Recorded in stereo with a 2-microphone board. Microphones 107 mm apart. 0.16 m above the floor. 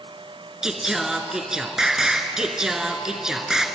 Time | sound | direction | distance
0.6 | singing | 5° right (ahead or behind) | 1.5 m